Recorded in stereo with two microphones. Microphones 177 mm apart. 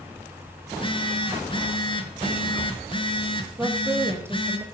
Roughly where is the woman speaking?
Centre.